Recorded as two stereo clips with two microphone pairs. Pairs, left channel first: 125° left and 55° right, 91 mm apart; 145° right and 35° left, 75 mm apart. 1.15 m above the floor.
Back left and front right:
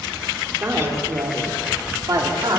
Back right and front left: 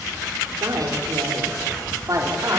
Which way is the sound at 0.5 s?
5° left.